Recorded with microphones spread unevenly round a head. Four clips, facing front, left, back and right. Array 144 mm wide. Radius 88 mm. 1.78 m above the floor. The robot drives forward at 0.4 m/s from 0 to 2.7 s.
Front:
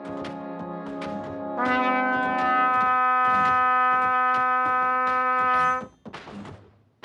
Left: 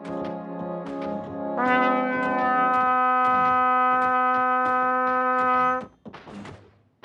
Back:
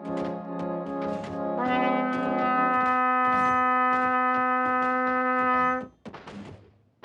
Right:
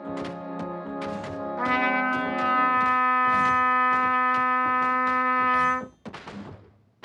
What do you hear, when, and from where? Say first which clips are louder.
1.6 s a trumpet: left 4 dB, front 2 dB; 70° left, 0.6 m; by 5.9 s 135° left, 0.6 m